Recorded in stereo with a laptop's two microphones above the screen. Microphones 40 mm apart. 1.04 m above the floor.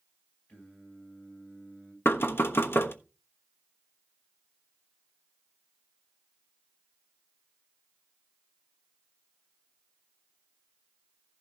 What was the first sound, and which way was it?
Singing, 40° left (ahead or behind).